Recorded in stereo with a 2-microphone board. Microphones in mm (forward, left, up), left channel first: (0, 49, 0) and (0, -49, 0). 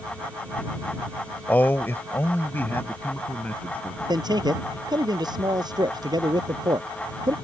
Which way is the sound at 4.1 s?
45° right (ahead or behind).